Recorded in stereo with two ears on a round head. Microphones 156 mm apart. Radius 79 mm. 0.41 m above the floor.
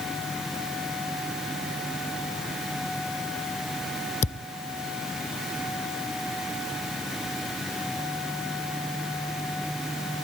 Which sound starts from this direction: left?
A thud, at 4.2 s.